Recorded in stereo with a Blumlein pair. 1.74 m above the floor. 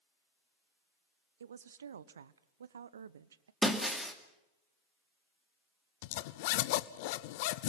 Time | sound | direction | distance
1.4 | a woman speaking | 65° right | 0.9 m
3.6 | breaking glass | straight ahead | 2.5 m
6.0 | a zipper | 50° left | 0.9 m